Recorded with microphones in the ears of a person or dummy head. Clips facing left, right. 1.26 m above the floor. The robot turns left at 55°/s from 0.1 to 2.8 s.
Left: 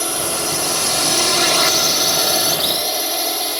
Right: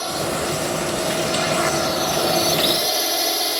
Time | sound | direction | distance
0.0 | a drone | 140° left | ?